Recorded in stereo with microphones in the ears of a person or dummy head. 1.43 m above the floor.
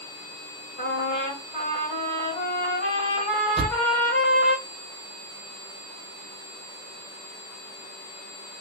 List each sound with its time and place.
0.8 s a trumpet: 30° left (ahead or behind), 1.7 m
3.6 s a thud: 5° right (ahead or behind), 1.8 m